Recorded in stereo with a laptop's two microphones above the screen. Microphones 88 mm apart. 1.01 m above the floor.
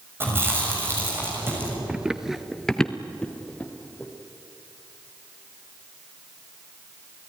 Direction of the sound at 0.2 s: 30° right (ahead or behind).